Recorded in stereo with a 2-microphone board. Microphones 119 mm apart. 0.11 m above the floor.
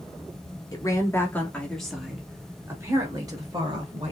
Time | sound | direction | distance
0.7 | a woman speaking | 30° left (ahead or behind) | 1.5 m